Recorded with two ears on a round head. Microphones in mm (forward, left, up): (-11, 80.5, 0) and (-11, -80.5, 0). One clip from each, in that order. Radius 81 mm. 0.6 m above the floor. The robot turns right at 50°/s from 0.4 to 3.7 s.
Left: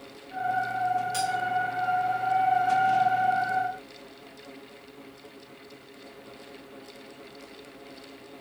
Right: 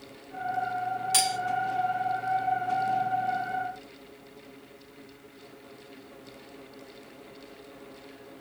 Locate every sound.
1.1 s cutlery clinking: 55° right (ahead or behind), 0.7 m; by 1.4 s 65° right (ahead or behind), 0.7 m